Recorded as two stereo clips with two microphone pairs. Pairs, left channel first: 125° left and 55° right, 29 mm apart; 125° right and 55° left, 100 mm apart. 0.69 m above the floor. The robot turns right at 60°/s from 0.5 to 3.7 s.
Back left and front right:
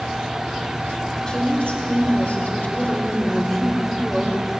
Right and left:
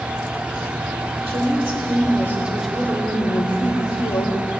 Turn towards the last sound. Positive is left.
turn(degrees=-150)